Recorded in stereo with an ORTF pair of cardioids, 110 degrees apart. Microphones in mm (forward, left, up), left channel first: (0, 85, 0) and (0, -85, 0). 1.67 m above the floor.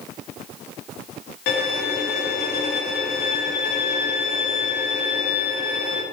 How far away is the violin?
About 0.8 m.